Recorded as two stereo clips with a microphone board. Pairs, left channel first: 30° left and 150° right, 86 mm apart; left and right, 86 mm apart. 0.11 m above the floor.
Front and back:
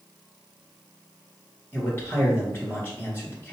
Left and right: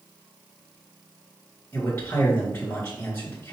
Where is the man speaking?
60° left, 1.9 m.